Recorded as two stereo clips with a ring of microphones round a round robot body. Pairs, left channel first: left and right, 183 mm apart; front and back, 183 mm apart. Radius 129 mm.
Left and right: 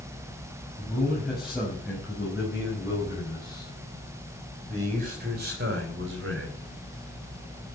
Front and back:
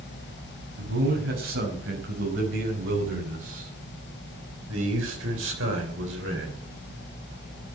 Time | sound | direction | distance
0.8 | a man speaking | 175° left | 5.5 m